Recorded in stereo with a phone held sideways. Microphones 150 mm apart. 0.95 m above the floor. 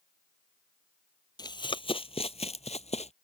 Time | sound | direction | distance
1.4 | running footsteps | 30° left (ahead or behind) | ?